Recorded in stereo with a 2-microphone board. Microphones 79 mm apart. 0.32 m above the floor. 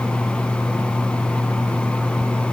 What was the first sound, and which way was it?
Only background noise.